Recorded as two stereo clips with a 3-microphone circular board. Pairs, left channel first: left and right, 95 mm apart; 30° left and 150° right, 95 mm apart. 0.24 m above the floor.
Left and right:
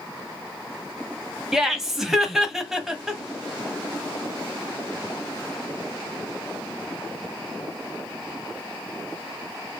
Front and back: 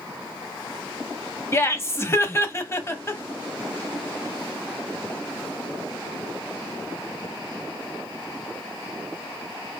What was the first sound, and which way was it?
Laughter, 10° right.